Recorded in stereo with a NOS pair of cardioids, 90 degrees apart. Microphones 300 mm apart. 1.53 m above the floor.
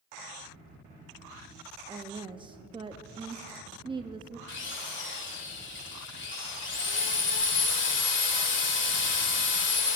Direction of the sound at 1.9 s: 15° right.